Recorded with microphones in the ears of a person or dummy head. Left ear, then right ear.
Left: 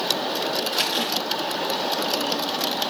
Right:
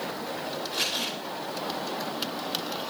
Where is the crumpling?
30° left (ahead or behind), 6 m.